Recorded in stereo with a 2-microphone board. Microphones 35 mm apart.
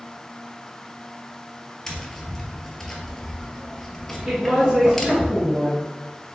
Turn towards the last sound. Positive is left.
turn(degrees=-15)  # may be behind; listen again after turning